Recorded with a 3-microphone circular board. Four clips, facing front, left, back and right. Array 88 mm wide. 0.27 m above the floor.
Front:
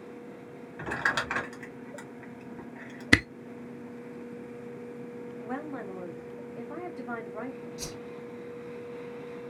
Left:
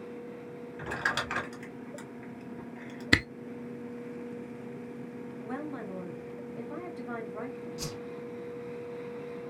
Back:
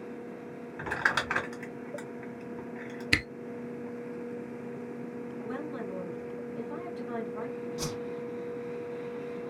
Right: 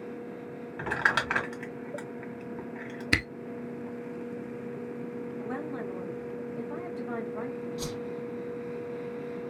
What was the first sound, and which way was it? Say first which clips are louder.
Crumpling: right 5 dB, even; 95° right.